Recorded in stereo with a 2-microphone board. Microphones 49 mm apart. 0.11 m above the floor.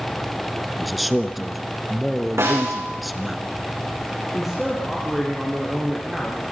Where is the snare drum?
80° right, 9 m.